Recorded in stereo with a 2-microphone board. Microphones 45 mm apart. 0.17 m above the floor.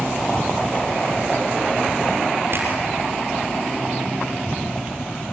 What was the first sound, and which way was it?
A finger snap, 55° right (ahead or behind).